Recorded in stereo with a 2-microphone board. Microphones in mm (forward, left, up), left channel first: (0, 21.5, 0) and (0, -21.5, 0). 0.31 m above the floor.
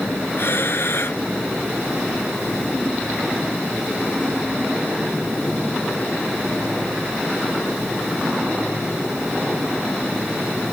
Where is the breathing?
60° left (ahead or behind).